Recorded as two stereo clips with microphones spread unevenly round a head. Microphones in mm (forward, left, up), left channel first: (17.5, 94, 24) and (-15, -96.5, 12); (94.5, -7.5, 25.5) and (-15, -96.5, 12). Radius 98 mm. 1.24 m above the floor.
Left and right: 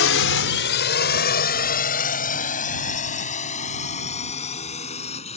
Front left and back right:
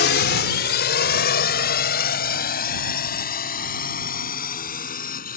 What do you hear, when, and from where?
0.0 s a drone: 60° left; by 5.4 s 20° left